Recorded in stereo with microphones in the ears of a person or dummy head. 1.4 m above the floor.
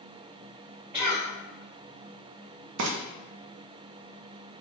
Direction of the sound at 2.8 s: 65° right (ahead or behind).